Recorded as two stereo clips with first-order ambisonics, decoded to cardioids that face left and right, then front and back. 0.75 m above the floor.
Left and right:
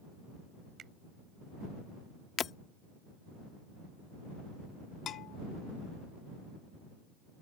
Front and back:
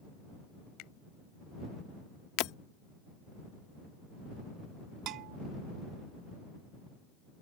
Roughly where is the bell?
Behind left.